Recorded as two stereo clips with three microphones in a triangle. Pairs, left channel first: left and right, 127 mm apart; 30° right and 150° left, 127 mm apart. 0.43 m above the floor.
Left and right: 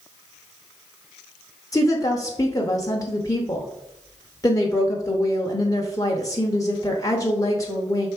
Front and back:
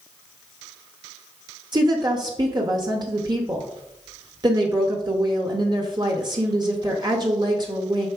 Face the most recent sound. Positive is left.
turn(degrees=130)